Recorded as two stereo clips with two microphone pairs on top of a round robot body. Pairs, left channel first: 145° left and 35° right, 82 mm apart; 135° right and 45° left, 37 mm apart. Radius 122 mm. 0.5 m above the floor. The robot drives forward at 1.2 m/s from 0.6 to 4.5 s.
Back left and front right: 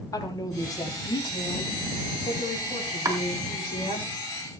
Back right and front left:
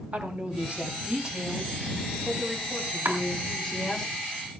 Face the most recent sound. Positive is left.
turn(degrees=40)